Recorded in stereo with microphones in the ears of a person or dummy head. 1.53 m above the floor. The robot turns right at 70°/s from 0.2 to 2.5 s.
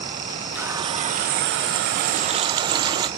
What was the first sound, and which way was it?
A running tap, 170° right.